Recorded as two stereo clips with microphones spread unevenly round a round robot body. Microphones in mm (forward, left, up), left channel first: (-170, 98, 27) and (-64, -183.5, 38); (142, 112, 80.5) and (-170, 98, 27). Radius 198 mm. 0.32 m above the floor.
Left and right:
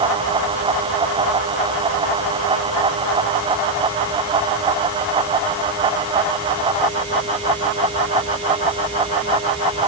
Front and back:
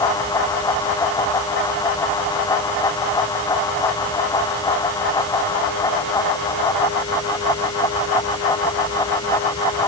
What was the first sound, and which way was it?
Only background noise.